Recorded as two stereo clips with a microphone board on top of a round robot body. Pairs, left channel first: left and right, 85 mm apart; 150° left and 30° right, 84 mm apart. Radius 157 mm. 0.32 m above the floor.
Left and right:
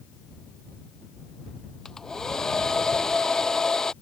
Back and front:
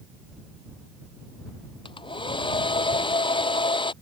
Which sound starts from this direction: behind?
A hair dryer, at 1.9 s.